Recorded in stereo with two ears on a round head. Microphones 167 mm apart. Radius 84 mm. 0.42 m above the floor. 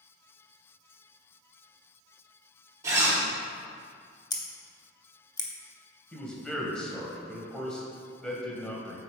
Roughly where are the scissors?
Left.